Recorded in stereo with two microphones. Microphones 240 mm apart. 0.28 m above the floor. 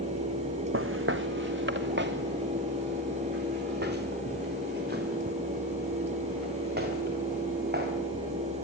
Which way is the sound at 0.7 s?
60° right (ahead or behind).